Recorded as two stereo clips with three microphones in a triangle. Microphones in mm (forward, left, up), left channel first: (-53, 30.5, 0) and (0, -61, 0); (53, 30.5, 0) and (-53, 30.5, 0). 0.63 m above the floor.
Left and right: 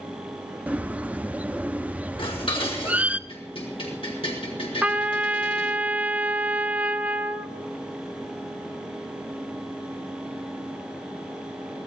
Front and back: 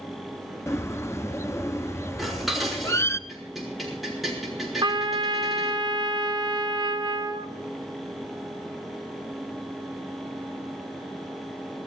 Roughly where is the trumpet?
Behind right.